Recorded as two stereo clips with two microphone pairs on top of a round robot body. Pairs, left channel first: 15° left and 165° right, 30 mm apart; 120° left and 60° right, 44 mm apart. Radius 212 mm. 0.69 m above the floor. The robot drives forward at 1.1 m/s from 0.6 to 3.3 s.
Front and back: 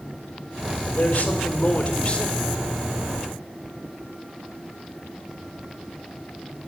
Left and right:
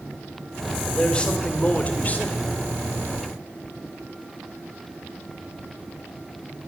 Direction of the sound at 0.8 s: 50° left.